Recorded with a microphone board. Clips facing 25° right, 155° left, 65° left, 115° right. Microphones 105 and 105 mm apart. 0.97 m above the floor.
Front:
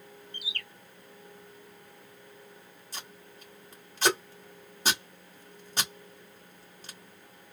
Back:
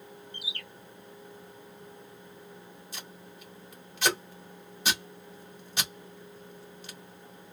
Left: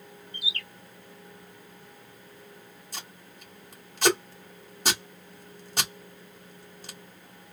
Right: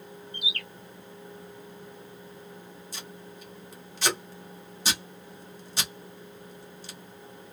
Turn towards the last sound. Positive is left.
turn(degrees=30)